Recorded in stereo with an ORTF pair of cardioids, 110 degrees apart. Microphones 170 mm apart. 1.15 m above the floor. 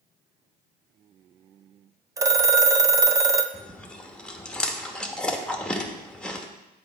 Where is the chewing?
5° left, 0.9 m.